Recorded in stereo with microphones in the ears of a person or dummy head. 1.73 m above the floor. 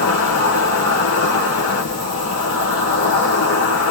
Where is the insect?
55° left (ahead or behind), 2.5 m.